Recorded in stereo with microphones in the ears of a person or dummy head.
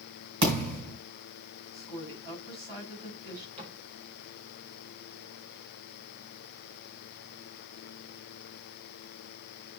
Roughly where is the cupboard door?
Right.